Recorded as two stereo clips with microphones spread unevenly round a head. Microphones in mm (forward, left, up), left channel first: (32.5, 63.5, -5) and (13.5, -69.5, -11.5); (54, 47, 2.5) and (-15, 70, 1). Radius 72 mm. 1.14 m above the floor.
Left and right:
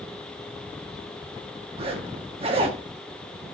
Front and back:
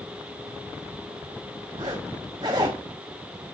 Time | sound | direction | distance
1.8 | a zipper | 150° right | 0.9 m